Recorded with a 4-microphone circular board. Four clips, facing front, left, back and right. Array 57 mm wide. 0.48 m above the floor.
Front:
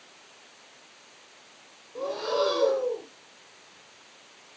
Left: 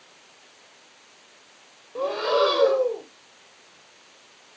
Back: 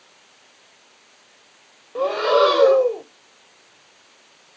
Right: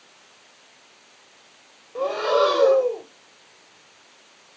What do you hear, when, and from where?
1.9 s breathing: straight behind, 0.7 m